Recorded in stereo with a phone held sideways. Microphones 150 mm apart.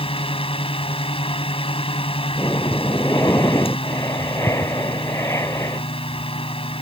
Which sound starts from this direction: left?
A fan, at 0.0 s.